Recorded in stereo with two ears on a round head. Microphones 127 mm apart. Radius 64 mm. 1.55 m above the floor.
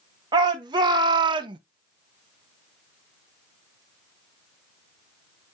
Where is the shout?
30° right (ahead or behind), 2.5 m; by 1.6 s 35° right (ahead or behind), 0.9 m.